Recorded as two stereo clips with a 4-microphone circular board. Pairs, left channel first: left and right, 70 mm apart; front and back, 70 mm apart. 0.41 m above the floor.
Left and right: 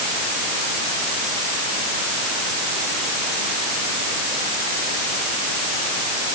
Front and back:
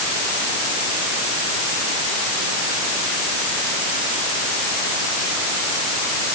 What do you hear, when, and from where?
Only background noise.